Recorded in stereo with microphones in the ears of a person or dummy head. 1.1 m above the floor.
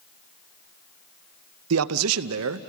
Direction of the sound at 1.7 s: 85° right.